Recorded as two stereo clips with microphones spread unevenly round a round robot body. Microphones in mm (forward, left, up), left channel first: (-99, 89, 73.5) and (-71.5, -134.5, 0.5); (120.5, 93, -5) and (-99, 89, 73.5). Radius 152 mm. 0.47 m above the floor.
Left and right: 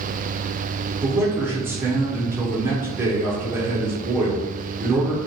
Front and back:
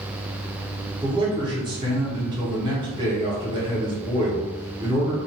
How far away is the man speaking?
About 0.9 m.